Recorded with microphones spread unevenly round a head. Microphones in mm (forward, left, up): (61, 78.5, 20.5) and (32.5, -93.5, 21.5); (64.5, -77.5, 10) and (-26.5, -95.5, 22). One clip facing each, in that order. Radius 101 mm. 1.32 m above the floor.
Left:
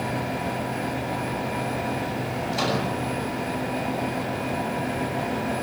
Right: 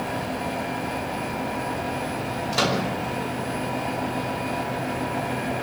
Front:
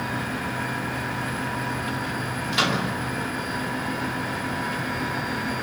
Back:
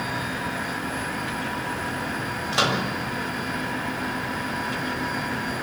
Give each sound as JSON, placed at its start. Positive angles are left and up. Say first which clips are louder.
{"t": 2.5, "sound": "a microwave", "louder": "right 2 dB, back 1 dB", "azimuth_deg": -115, "distance_m": 7.0}